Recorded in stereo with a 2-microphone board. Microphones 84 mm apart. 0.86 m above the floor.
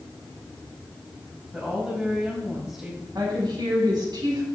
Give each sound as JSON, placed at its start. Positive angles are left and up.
{"t": 1.5, "sound": "a woman speaking", "side_deg": -5, "distance_m": 4.5}
{"t": 3.1, "sound": "a woman speaking", "side_deg": -55, "distance_m": 6.0}